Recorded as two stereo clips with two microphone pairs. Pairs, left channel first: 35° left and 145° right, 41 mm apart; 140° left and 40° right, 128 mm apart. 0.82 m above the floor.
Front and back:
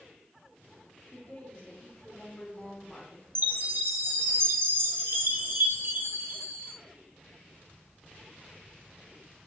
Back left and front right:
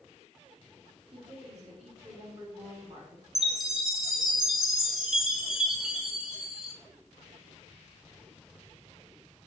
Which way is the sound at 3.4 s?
125° right.